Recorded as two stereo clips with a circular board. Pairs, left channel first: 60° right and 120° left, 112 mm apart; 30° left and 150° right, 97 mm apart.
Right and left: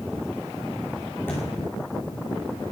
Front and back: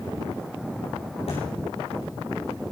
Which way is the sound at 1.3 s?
10° left.